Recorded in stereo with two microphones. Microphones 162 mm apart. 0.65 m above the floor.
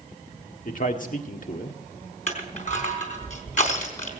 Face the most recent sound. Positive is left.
turn(degrees=50)  # may be behind; listen again after turning